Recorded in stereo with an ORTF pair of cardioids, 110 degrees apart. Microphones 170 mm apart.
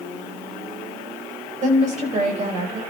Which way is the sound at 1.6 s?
50° right.